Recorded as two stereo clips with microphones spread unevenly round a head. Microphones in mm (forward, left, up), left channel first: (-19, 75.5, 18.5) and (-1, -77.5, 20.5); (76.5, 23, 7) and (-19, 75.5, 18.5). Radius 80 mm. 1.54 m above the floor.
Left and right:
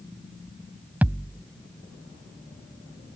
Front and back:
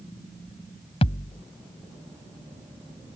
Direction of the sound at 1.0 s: 5° right.